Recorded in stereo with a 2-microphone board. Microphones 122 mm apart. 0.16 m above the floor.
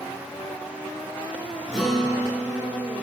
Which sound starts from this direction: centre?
A guitar, at 1.7 s.